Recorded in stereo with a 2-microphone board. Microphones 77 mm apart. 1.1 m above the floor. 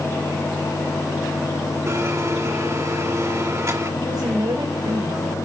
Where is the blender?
40° right (ahead or behind), 1.8 m.